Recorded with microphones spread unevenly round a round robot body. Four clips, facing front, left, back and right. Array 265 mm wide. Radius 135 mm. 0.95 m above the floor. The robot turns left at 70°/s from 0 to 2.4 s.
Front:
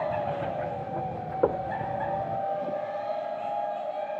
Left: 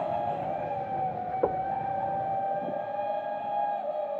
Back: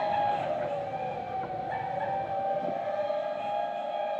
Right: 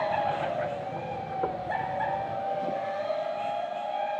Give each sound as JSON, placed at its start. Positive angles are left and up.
{"t": 1.4, "sound": "knocking", "azimuth_deg": 15}